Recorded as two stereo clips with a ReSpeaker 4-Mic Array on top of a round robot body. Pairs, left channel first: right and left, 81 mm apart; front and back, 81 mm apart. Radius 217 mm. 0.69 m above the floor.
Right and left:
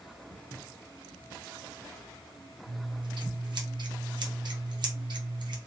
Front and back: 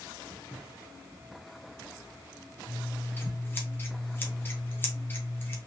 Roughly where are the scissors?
Ahead left.